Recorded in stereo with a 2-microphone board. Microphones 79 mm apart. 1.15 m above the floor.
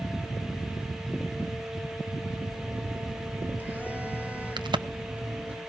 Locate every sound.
2.5 s a phone buzzing: 20° right (ahead or behind), 2.5 m
4.6 s a crack: 75° right (ahead or behind), 0.6 m